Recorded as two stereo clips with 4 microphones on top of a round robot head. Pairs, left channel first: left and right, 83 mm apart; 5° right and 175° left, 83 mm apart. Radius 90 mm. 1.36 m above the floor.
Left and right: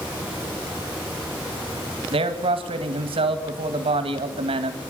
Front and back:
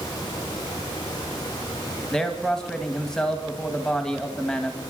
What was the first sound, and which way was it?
A man speaking, 90° right.